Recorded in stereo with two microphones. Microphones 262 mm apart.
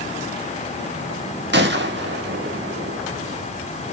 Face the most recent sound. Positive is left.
turn(degrees=-45)  # may be behind; listen again after turning